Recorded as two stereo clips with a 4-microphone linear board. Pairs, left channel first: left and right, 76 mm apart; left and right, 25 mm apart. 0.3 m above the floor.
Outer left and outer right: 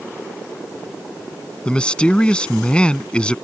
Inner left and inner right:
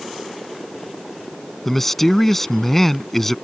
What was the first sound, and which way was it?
A man speaking, 15° left (ahead or behind).